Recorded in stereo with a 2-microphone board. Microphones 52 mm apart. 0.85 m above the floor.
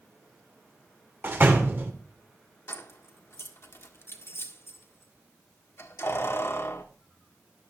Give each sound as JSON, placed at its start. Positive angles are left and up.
{"t": 1.2, "sound": "a door slam", "side_deg": -40, "distance_m": 2.5}
{"t": 2.7, "sound": "keys jangling", "side_deg": 55, "distance_m": 1.6}